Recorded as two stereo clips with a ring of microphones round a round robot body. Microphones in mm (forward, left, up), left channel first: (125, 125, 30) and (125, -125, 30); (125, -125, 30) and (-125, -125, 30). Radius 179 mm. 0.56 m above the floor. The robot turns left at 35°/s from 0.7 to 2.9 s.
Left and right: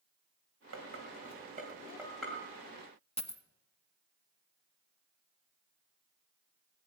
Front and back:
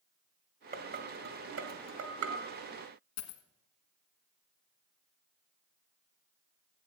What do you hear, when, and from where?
0.7 s dishes clattering: 130° right, 2 m; by 2.4 s 170° left, 2 m
3.2 s a dropped coin: 20° left, 1.4 m